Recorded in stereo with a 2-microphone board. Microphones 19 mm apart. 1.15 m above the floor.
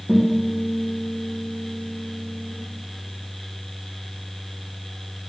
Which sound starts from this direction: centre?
A guitar, at 0.1 s.